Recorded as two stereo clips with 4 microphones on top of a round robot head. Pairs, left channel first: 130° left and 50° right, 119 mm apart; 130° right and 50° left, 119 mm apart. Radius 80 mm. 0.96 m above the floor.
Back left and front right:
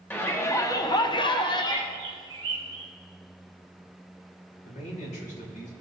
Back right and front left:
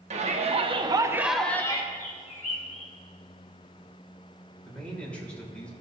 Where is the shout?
60° left, 1.7 m; by 1.8 s straight behind, 1.1 m.